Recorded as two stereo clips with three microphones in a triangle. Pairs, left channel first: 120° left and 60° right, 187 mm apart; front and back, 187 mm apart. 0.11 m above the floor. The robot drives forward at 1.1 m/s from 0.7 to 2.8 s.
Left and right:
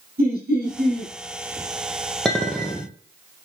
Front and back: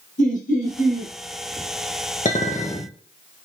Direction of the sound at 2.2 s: 35° left.